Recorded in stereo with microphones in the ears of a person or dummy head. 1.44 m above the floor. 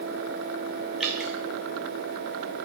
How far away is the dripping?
About 1.7 m.